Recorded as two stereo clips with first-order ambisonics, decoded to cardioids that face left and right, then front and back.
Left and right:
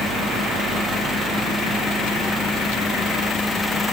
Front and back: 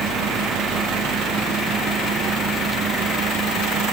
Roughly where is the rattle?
No rattle in this recording.